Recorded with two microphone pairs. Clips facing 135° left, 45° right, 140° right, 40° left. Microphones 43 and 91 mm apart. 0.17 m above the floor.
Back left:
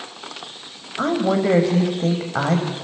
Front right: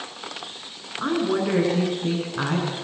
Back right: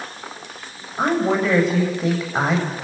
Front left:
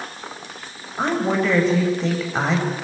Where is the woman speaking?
140° left, 8.5 m.